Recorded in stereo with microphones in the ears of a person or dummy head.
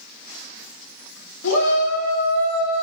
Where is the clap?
No clap in this recording.